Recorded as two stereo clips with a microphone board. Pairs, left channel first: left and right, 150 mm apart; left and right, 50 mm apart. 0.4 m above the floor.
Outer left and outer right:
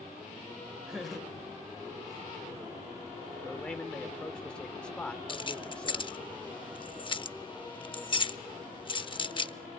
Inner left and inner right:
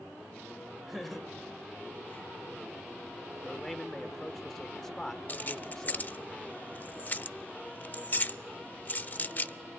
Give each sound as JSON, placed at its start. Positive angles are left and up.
{"t": 0.9, "sound": "laughter", "side_deg": -5, "distance_m": 2.0}
{"t": 3.4, "sound": "a man speaking", "side_deg": 5, "distance_m": 0.7}
{"t": 5.3, "sound": "keys jangling", "side_deg": 35, "distance_m": 0.5}